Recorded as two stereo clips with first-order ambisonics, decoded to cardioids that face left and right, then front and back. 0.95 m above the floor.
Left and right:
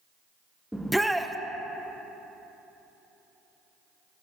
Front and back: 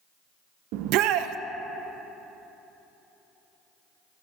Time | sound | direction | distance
0.7 | a shout | straight behind | 0.6 m